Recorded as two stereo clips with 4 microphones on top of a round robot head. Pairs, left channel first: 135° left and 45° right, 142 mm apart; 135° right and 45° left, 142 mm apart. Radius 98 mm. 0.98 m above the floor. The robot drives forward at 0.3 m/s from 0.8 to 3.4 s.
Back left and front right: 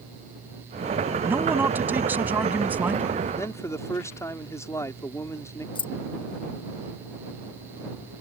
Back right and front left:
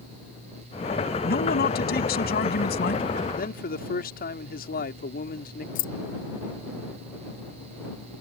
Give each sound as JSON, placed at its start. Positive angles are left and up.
{"t": 1.2, "sound": "a man speaking", "azimuth_deg": -120}
{"t": 3.4, "sound": "a man speaking", "azimuth_deg": -155}
{"t": 5.8, "sound": "keys jangling", "azimuth_deg": -165}